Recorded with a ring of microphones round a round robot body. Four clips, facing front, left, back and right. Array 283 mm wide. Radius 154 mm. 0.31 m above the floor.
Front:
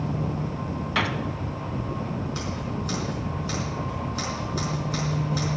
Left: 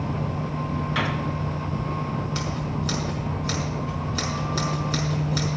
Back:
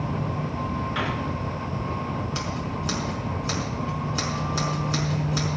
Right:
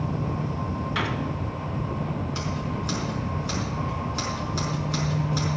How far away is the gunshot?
About 1.7 m.